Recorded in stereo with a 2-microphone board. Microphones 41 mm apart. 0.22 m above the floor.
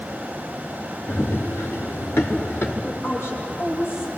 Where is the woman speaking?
70° left (ahead or behind), 6.5 m.